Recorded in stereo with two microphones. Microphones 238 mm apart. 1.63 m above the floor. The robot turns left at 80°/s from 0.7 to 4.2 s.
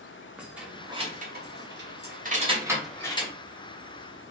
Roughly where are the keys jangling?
Centre.